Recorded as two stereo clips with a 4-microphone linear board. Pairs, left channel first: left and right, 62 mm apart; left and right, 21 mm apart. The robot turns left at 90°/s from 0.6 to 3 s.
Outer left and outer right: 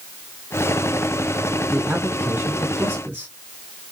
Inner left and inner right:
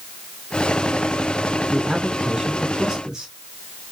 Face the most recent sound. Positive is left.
turn(degrees=-125)